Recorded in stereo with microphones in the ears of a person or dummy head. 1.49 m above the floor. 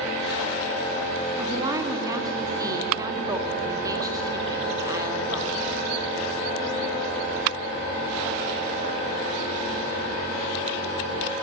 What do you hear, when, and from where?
1.4 s a woman speaking: 20° right (ahead or behind), 2.5 m